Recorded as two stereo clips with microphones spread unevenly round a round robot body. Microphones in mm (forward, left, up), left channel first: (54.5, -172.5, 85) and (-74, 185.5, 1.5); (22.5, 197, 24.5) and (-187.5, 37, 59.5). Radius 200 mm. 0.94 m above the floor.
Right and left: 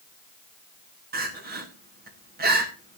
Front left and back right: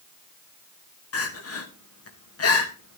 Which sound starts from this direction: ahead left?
Crying, at 1.1 s.